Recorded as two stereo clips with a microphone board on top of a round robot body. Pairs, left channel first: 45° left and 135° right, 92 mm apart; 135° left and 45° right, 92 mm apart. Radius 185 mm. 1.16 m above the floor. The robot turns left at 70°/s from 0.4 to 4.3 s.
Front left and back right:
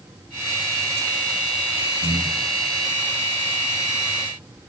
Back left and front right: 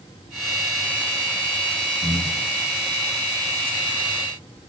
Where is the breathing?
55° left, 1.9 m; by 2.5 s 20° left, 1.9 m.